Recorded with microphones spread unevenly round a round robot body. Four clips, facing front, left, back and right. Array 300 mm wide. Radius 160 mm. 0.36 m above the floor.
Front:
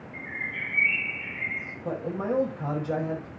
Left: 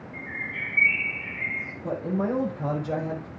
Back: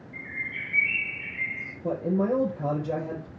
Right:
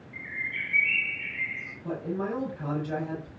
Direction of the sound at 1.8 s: 155° left.